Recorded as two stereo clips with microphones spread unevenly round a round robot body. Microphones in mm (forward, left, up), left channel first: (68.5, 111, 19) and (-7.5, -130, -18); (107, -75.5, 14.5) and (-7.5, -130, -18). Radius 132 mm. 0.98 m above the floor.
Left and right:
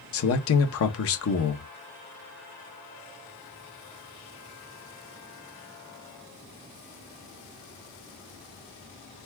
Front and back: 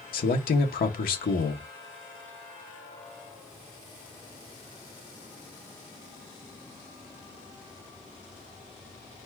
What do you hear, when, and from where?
0.1 s a man speaking: 35° left, 1.1 m